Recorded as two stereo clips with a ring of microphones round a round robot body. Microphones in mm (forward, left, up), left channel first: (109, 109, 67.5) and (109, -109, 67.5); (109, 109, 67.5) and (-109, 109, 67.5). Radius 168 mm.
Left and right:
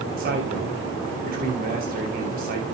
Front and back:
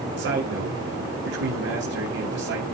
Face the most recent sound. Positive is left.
turn(degrees=-145)